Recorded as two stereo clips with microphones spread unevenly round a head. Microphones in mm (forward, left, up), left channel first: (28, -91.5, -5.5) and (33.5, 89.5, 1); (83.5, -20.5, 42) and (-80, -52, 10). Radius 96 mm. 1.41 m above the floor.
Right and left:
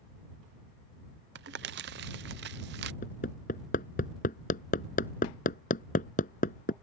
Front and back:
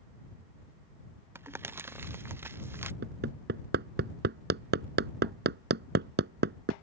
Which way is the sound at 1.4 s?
120° left.